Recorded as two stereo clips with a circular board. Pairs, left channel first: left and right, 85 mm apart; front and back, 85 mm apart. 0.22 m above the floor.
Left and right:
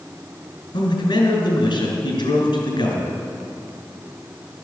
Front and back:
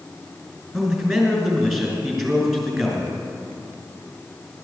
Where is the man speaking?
90° left, 3.5 m.